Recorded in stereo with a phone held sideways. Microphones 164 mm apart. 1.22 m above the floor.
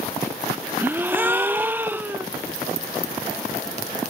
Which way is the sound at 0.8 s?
10° right (ahead or behind).